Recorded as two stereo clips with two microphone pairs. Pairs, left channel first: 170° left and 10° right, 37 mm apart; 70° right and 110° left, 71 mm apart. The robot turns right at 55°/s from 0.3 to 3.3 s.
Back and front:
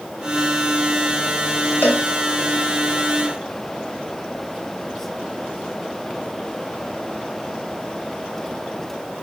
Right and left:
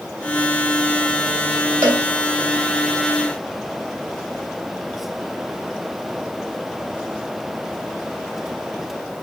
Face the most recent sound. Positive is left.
turn(degrees=-130)